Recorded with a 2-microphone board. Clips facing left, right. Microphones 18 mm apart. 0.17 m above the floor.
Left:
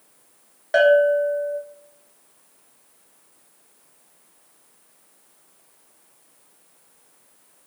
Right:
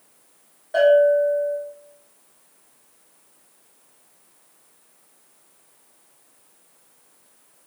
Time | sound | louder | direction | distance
0.7 | a bell | even | 55° left (ahead or behind) | 1.6 m